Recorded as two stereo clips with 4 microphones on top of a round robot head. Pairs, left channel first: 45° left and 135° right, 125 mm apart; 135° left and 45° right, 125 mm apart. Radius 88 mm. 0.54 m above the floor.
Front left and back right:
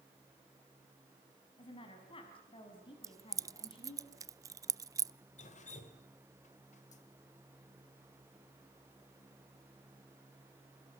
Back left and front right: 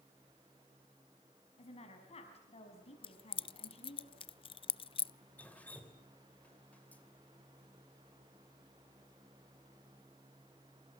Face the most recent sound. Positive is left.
turn(degrees=55)